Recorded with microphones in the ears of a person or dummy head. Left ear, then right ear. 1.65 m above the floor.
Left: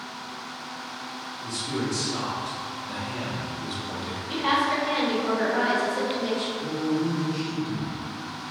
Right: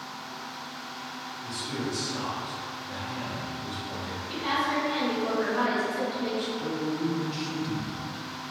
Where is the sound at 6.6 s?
55° right (ahead or behind), 0.5 m.